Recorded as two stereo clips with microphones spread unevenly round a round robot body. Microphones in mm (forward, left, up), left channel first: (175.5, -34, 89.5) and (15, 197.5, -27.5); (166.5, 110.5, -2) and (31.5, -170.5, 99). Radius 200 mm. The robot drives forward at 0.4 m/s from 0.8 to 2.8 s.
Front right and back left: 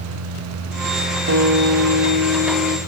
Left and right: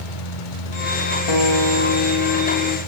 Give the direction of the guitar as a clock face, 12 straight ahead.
10 o'clock.